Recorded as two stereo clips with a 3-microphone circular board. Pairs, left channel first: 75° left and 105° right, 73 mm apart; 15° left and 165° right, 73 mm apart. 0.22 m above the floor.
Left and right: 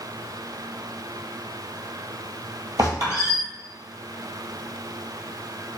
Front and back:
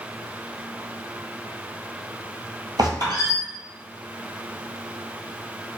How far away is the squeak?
About 1.8 m.